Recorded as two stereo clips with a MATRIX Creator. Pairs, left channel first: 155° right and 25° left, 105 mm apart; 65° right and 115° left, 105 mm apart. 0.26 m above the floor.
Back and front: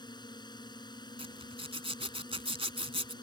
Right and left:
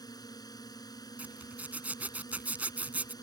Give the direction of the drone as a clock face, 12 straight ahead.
4 o'clock.